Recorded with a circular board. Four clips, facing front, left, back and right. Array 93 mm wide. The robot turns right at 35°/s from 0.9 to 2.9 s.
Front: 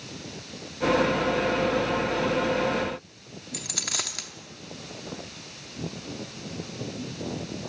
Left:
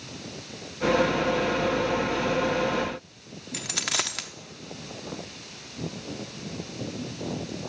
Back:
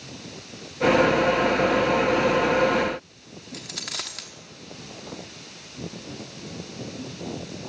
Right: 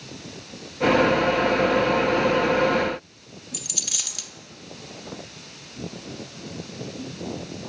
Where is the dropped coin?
85° left, 0.9 m.